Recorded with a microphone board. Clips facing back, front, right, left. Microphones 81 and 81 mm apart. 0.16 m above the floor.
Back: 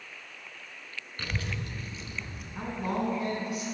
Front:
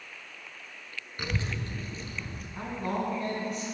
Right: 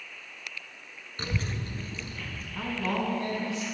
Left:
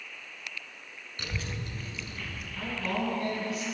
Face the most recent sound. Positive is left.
turn(degrees=-105)